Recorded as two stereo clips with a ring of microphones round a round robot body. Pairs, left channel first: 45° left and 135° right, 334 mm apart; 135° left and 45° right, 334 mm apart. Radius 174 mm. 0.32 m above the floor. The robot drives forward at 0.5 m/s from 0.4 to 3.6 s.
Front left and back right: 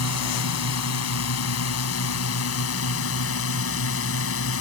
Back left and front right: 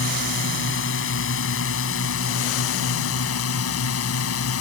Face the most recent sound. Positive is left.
turn(degrees=90)